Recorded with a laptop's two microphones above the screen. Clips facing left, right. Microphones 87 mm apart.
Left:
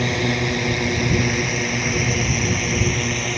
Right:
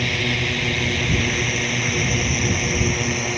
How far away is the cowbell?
No cowbell in this recording.